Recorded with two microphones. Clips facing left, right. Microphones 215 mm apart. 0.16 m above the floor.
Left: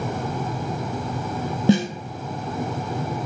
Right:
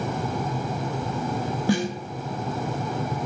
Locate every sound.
1.7 s a snare drum: 25° left (ahead or behind), 0.5 m